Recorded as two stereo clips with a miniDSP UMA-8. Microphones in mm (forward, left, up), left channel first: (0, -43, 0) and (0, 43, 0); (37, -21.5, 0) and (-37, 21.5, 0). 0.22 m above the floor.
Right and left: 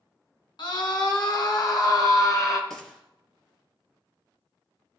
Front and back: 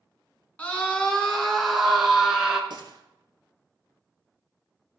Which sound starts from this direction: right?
A scream, at 0.6 s.